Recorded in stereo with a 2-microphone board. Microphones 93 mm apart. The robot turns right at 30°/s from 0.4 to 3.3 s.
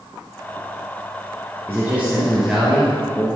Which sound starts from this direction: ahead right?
A man speaking, at 1.7 s.